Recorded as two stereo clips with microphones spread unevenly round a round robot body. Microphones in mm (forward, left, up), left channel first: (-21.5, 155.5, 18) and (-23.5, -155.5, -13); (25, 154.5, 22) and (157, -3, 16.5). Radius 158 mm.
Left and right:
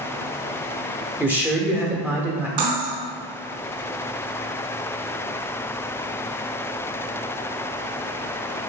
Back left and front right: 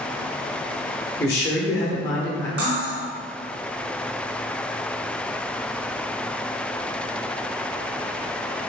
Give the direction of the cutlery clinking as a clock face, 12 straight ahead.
4 o'clock.